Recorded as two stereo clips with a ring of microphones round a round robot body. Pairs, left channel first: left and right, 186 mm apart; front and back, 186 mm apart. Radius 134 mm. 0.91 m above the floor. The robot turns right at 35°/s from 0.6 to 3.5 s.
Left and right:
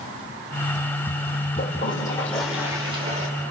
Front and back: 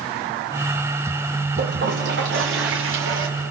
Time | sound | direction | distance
1.6 | a toilet flushing | 150° left | 2.5 m